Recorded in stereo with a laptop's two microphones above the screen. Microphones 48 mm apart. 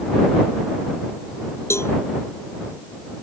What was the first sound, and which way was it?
A cowbell, 60° left (ahead or behind).